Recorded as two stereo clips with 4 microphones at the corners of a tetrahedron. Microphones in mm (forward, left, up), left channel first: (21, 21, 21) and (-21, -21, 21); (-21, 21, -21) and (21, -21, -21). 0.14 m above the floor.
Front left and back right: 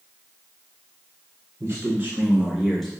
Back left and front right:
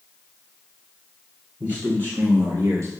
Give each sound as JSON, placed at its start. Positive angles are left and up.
{"t": 1.6, "sound": "a man speaking", "azimuth_deg": -100, "distance_m": 1.9}